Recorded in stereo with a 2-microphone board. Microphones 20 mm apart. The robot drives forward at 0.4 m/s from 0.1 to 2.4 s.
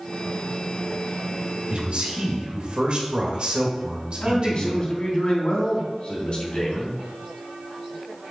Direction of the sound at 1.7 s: 50° right (ahead or behind).